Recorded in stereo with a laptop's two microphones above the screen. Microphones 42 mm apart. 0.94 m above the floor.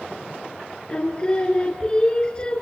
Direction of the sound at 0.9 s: 20° left (ahead or behind).